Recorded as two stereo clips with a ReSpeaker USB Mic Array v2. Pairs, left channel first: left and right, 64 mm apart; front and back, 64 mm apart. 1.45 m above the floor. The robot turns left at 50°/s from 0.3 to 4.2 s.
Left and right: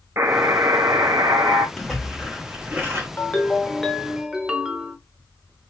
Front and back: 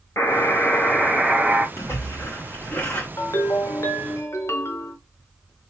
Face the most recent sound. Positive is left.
turn(degrees=-20)